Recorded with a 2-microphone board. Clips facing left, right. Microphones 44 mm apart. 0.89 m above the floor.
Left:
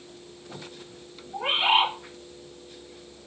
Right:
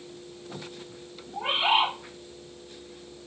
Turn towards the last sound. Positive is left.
turn(degrees=20)  # may be behind; listen again after turning